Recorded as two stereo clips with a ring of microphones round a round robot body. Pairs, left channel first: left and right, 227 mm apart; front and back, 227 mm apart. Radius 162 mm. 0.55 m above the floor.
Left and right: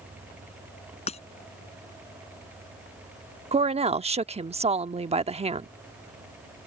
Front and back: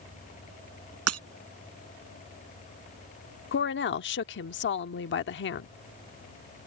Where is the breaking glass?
165° left.